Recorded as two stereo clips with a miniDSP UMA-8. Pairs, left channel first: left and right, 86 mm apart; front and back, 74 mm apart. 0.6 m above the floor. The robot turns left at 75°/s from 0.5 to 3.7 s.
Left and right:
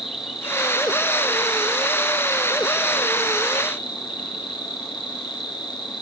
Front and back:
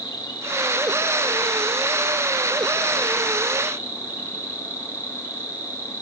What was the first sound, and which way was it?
An insect, 5° right.